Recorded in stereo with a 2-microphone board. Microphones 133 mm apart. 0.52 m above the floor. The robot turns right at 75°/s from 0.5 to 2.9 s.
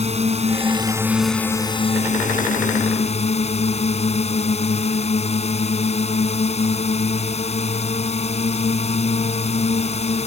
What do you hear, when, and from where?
0.0 s a drone: 55° right; by 10.3 s 125° left